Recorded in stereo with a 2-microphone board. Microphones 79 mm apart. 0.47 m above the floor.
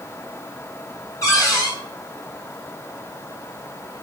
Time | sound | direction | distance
1.2 | a cupboard door | 40° left (ahead or behind) | 3.5 m